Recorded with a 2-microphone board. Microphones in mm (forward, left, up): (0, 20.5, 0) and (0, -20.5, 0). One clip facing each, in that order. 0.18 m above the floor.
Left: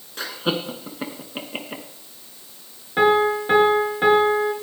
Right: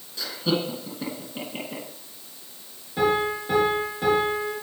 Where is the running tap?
No running tap in this recording.